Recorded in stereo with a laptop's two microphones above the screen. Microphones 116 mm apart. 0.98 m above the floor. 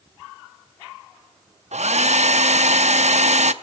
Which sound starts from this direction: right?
A hair dryer, at 1.7 s.